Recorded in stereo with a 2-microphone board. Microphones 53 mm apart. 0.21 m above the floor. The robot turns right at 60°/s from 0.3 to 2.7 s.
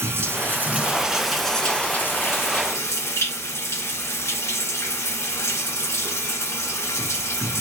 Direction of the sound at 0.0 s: 60° right.